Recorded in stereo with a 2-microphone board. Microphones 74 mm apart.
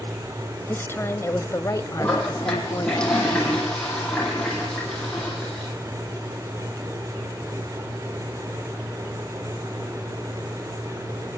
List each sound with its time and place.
0.7 s a woman speaking: 30° left (ahead or behind), 1.4 m; by 3.0 s 50° left (ahead or behind), 1.6 m
2.0 s a toilet flushing: 10° left (ahead or behind), 9 m